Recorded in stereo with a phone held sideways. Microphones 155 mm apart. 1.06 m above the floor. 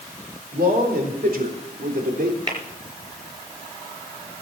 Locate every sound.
0.5 s a man speaking: 80° right, 4.5 m; by 2.4 s 75° right (ahead or behind), 3.5 m
2.5 s tapping: 30° right (ahead or behind), 4 m